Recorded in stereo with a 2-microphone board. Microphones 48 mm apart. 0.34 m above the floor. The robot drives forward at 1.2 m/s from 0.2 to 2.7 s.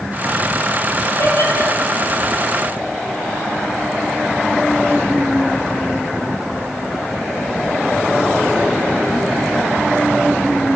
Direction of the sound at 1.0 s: 65° left (ahead or behind).